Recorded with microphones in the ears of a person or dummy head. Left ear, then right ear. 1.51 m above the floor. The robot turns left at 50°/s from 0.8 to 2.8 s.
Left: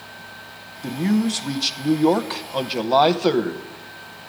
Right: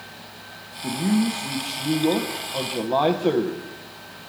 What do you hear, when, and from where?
0.8 s a man speaking: 130° left, 0.8 m; by 3.6 s 35° left, 0.8 m